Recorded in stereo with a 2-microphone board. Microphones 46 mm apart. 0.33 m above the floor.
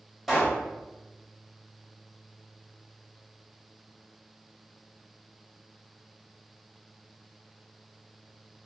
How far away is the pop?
About 1.9 m.